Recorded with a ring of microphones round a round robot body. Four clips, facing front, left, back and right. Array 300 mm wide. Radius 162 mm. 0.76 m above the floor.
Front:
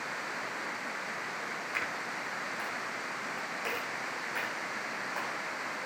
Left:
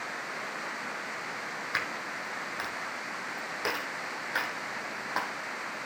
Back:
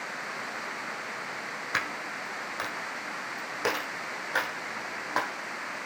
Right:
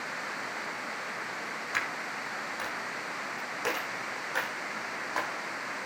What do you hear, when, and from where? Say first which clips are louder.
1.7 s a dropped coin: right 1 dB, back 6 dB; 175° left, 4.5 m